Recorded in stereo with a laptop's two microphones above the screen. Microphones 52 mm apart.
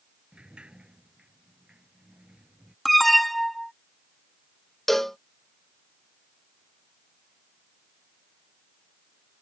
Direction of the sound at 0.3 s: 20° right (ahead or behind).